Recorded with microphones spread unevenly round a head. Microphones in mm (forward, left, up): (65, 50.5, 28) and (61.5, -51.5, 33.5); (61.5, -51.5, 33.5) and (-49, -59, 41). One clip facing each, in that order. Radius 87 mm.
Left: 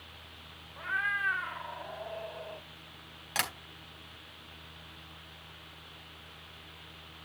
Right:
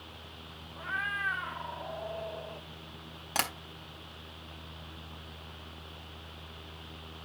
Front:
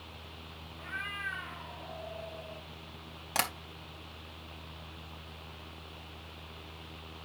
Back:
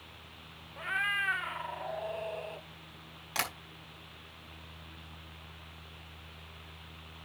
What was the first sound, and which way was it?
A cat meowing, 170° right.